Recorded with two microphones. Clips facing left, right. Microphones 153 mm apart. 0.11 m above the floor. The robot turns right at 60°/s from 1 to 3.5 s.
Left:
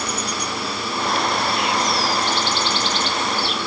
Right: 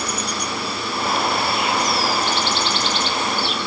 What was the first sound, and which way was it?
Only background noise.